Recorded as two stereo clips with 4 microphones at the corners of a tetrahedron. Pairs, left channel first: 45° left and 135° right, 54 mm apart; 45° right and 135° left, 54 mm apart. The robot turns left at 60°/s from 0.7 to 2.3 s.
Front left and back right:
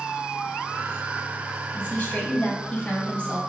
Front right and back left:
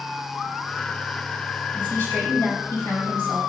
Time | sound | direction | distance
1.7 | a woman speaking | 10° left | 3.5 m